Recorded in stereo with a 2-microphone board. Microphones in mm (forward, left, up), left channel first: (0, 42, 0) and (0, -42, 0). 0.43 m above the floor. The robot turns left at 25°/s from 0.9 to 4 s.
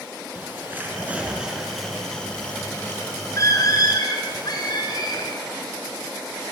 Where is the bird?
20° right (ahead or behind), 6 m; by 5.4 s 55° left (ahead or behind), 6 m.